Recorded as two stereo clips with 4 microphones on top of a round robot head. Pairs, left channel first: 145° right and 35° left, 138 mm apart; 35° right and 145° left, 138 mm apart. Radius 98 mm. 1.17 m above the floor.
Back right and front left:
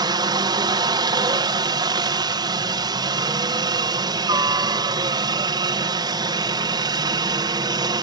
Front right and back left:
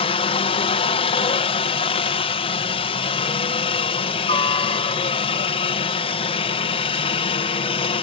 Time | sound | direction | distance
0.0 | a helicopter | 10° right | ?